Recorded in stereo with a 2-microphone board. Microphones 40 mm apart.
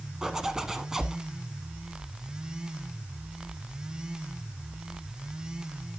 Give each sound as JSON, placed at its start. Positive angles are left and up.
{"t": 0.2, "sound": "a zipper", "side_deg": -15, "distance_m": 1.0}